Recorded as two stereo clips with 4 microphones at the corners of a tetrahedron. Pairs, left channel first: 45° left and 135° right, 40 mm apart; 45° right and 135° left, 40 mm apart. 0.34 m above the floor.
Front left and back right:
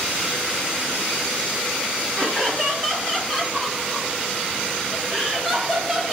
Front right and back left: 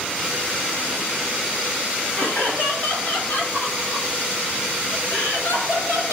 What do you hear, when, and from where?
2.2 s laughter: 30° right, 7.5 m; by 6.1 s 55° right, 11 m